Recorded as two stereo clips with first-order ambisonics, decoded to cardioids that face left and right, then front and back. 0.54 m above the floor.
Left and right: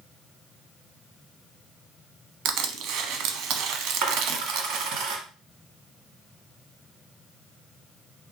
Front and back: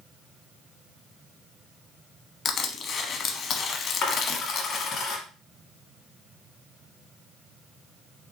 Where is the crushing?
60° right, 0.8 m.